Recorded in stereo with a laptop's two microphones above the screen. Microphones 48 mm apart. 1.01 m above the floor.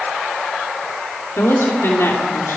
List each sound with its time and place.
1.4 s a woman speaking: 65° left (ahead or behind), 3 m